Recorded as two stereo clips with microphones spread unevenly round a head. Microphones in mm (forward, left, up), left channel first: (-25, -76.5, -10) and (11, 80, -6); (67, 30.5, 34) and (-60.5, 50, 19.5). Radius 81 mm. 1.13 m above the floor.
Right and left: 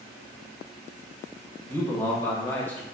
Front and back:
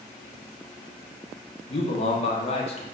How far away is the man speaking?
About 0.6 m.